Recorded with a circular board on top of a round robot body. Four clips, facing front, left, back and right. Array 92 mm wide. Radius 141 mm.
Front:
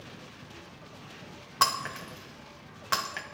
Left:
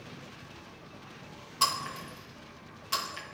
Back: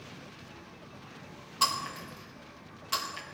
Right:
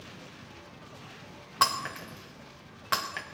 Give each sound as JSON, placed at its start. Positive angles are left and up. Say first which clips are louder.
{"t": 1.6, "sound": "breaking glass", "louder": "right 3 dB, front 3 dB", "azimuth_deg": -50, "distance_m": 1.7}